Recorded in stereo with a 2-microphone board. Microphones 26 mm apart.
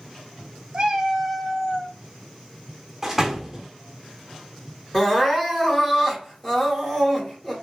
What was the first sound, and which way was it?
A cat meowing, 35° right (ahead or behind).